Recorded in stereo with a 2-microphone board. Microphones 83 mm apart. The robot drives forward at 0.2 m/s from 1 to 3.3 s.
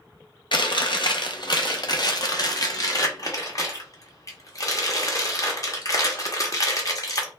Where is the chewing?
65° left (ahead or behind), 0.7 m; by 7.3 s 45° left (ahead or behind), 0.9 m.